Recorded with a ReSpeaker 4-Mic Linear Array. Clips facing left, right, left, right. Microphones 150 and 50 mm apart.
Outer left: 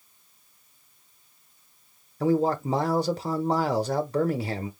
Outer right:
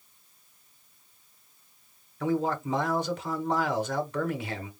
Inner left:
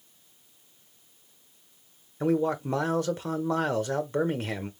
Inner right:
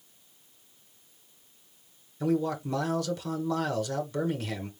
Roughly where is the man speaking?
Left.